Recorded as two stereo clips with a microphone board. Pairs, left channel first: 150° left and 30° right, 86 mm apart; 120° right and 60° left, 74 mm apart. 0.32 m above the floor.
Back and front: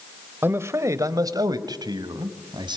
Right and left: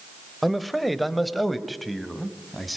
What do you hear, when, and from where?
0.4 s a man speaking: 30° right, 1.2 m